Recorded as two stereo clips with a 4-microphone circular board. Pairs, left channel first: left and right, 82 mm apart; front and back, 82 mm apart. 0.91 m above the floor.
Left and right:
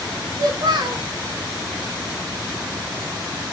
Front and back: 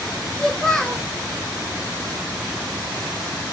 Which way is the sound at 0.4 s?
80° right.